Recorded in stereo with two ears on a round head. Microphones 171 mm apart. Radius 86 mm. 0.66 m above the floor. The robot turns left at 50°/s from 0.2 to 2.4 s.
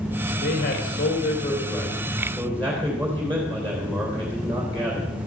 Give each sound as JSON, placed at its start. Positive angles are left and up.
{"t": 0.4, "sound": "a man speaking", "azimuth_deg": 110, "distance_m": 3.0}